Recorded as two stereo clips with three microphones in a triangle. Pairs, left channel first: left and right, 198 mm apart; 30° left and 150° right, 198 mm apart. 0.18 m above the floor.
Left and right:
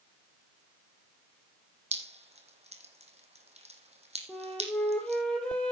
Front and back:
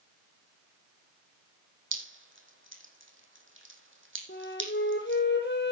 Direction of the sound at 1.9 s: 150° right.